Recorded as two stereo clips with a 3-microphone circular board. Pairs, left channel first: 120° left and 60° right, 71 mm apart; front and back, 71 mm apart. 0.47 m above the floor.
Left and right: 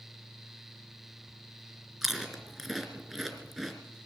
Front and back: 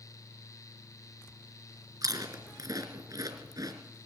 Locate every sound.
2.0 s chewing: 150° right, 3.5 m